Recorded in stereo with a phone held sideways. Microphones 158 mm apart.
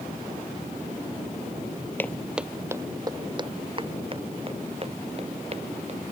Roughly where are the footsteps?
Centre.